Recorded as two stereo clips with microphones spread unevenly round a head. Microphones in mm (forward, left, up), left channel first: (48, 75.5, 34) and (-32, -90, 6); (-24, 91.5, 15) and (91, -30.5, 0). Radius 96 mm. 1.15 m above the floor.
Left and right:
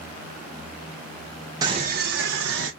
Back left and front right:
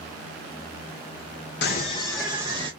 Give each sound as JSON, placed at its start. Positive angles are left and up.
{"t": 1.6, "sound": "a scream", "azimuth_deg": 175, "distance_m": 0.6}